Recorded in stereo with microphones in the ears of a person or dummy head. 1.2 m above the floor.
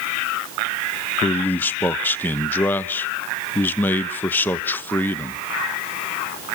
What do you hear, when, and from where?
1.2 s a man speaking: 20° left (ahead or behind), 1.0 m